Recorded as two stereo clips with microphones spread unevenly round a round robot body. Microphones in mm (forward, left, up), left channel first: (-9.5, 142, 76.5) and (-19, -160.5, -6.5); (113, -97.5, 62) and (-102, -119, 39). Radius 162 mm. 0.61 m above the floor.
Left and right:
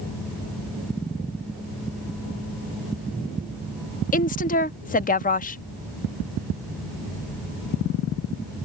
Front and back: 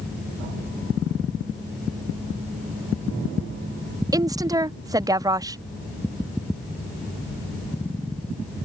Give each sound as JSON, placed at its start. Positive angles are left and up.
{"t": 4.1, "sound": "a woman speaking", "azimuth_deg": 155}